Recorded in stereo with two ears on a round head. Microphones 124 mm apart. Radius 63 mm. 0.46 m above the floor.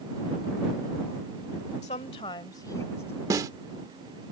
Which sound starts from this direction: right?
A snare drum, at 3.3 s.